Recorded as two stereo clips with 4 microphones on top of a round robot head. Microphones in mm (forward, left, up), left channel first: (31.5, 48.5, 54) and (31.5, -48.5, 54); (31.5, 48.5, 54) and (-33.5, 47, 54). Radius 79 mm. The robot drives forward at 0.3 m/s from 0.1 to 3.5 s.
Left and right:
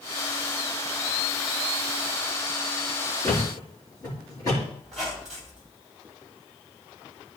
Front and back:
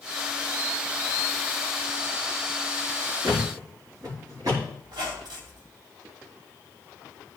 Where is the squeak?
Straight behind, 2.5 m.